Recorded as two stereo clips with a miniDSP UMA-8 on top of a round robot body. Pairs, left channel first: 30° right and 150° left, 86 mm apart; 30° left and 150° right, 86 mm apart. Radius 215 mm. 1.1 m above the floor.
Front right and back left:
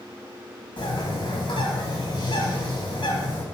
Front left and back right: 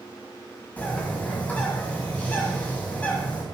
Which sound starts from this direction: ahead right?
A bird, at 0.8 s.